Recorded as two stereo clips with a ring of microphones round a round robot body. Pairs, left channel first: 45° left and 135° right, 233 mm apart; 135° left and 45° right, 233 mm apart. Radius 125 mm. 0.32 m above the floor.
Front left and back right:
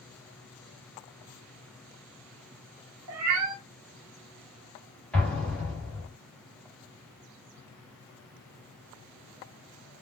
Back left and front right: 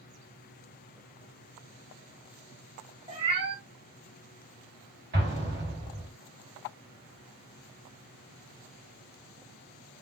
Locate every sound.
3.1 s a cat meowing: 115° right, 0.8 m
5.1 s an explosion: 40° right, 1.8 m